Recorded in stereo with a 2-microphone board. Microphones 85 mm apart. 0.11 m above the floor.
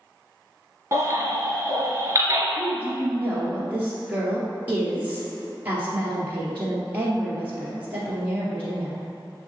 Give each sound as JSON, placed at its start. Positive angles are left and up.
{"t": 0.9, "sound": "a baby crying", "side_deg": -35, "distance_m": 1.4}
{"t": 2.6, "sound": "a woman speaking", "side_deg": -20, "distance_m": 1.9}